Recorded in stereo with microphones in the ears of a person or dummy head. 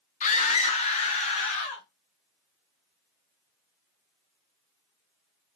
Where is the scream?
35° left (ahead or behind), 0.9 m.